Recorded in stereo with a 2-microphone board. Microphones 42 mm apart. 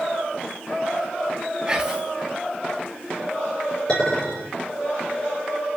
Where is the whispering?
20° right (ahead or behind), 1.5 m.